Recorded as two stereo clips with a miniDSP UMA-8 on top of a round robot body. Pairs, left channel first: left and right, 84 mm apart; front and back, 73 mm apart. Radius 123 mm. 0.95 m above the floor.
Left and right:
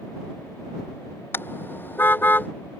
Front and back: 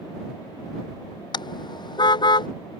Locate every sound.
1.3 s a car horn: 25° left; by 2.5 s 20° left